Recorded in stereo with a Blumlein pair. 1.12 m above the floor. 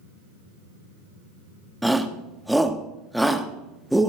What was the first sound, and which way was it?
A shout, straight ahead.